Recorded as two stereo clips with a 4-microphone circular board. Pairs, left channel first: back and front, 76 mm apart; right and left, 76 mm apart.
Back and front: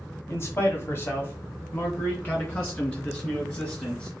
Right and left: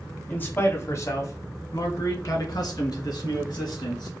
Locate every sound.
0.3 s a man speaking: 150° right, 1.2 m; by 4.1 s 115° right, 3.5 m